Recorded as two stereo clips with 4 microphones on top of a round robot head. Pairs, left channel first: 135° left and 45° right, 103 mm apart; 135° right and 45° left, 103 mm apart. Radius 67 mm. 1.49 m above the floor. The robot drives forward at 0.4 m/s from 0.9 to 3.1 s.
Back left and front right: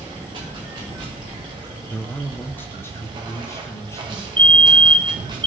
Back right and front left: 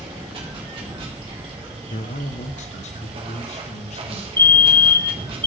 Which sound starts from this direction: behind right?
A man speaking, at 1.9 s.